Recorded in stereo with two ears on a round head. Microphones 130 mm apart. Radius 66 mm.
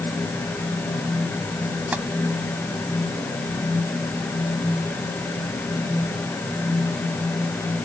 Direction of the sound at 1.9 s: 10° right (ahead or behind).